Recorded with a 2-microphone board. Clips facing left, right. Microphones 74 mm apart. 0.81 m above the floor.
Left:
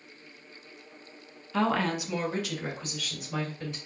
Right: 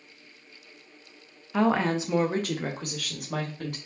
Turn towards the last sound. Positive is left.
turn(degrees=-70)  # may be behind; listen again after turning